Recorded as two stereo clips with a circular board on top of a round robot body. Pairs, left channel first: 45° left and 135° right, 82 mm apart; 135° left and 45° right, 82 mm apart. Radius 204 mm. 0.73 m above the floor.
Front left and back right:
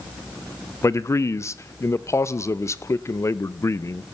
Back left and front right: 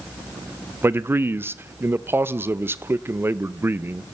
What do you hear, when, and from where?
0.8 s a man speaking: 10° left, 0.9 m